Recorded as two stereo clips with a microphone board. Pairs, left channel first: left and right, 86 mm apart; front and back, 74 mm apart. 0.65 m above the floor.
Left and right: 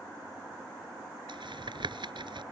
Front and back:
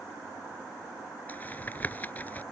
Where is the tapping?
65° right.